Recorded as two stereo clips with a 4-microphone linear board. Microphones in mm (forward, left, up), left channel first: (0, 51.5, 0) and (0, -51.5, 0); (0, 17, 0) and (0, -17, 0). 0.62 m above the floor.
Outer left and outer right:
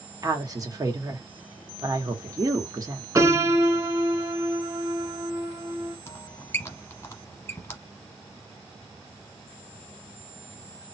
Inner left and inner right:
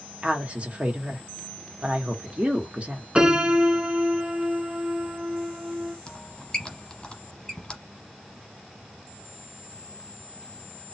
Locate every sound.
0.2 s a woman speaking: 35° right (ahead or behind), 1.2 m
3.1 s a piano: 30° right (ahead or behind), 1.0 m
6.1 s a squeak: 25° left (ahead or behind), 1.1 m